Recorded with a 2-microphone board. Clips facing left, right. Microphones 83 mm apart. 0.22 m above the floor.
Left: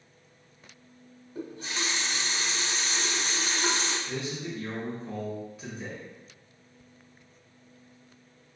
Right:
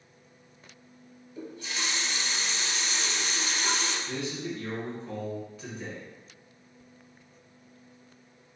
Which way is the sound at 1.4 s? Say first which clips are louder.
Left 2 dB; 45° left (ahead or behind).